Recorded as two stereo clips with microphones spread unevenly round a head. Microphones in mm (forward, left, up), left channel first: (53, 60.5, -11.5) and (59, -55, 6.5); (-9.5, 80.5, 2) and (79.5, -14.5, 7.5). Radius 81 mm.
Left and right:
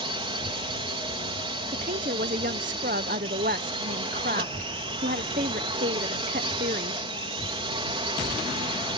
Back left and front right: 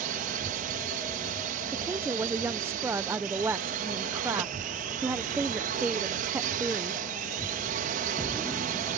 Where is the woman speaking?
125° right.